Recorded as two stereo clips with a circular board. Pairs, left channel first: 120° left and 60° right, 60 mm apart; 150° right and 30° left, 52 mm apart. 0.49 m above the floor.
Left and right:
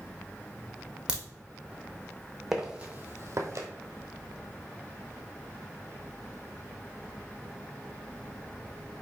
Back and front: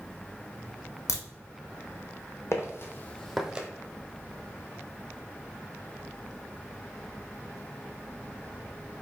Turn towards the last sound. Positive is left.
turn(degrees=-35)